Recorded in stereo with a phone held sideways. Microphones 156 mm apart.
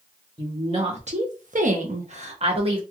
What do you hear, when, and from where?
0.4 s a woman speaking: 30° right (ahead or behind), 1.0 m; by 2.8 s 35° right (ahead or behind), 1.1 m